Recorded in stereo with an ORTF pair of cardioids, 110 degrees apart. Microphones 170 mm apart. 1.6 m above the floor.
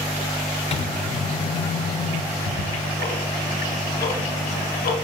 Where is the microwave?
40° left, 0.7 m.